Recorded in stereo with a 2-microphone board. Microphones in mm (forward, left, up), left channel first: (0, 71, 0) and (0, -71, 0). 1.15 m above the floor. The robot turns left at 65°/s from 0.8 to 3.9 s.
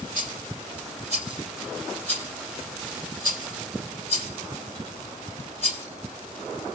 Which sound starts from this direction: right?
A rattle, at 0.1 s.